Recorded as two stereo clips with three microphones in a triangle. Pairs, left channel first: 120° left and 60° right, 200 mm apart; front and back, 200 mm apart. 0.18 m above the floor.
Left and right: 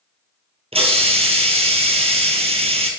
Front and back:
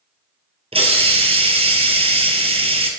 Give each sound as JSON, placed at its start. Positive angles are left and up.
{"t": 0.7, "sound": "a hiss", "azimuth_deg": -120, "distance_m": 1.1}